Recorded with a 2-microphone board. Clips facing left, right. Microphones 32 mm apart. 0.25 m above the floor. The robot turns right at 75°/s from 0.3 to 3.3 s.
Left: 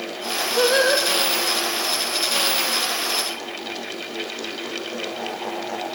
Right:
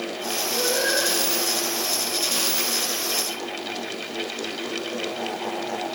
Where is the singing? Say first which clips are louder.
Left 6 dB; 45° left, 3 m; by 1.1 s 80° left, 3 m.